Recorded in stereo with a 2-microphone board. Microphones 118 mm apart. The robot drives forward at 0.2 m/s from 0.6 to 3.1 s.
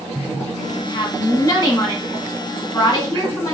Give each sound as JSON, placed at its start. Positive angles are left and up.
{"t": 0.7, "sound": "a woman speaking", "side_deg": 40, "distance_m": 1.3}